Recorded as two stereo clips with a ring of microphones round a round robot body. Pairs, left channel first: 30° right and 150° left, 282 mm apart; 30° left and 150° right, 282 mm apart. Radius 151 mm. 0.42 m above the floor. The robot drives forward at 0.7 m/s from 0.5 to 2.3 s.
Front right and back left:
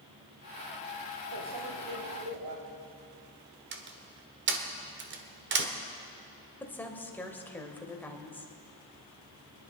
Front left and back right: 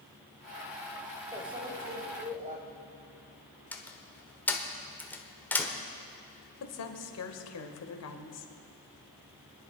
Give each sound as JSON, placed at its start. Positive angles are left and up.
{"t": 1.3, "sound": "a microwave", "azimuth_deg": 135, "distance_m": 2.0}
{"t": 3.7, "sound": "a door slam", "azimuth_deg": 115, "distance_m": 1.3}
{"t": 6.6, "sound": "a woman speaking", "azimuth_deg": 55, "distance_m": 1.6}